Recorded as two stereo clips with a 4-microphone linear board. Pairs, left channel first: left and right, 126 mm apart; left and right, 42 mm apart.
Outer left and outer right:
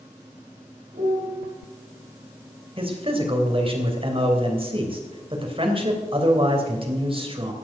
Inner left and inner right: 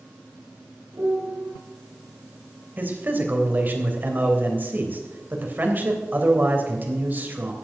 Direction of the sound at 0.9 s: 80° right.